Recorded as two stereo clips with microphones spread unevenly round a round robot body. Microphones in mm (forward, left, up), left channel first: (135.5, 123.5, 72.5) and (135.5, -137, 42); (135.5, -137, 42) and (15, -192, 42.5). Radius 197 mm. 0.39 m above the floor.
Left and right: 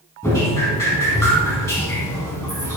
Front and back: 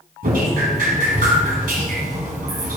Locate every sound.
0.2 s dripping: 175° left, 1.2 m